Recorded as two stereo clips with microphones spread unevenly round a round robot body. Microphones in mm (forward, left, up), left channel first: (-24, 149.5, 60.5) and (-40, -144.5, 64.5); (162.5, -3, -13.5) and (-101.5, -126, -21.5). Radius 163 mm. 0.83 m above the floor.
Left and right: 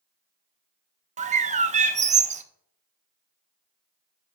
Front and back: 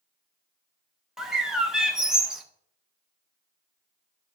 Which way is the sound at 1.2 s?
75° right.